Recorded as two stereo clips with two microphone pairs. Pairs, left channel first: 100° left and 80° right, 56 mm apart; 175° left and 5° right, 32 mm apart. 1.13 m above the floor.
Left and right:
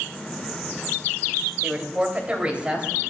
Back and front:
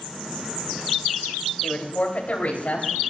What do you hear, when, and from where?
1.6 s a woman speaking: 145° right, 2.5 m; by 2.9 s 150° right, 3.5 m